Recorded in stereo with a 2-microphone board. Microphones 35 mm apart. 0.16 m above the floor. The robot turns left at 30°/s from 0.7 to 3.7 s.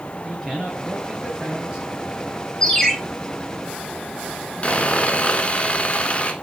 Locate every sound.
0.2 s a man speaking: 15° left, 3 m; by 1.9 s 20° right, 3 m
2.6 s a ringtone: 15° left (ahead or behind), 2.5 m; by 2.9 s 10° left (ahead or behind), 2.5 m
4.6 s sawing: 35° left (ahead or behind), 0.9 m